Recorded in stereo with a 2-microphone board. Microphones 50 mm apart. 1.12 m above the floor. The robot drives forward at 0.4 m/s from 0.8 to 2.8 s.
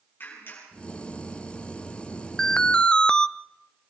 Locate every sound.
0.2 s a clap: 45° left (ahead or behind), 9 m
2.4 s an alarm: 10° left (ahead or behind), 0.6 m; by 3.3 s 15° left (ahead or behind), 0.5 m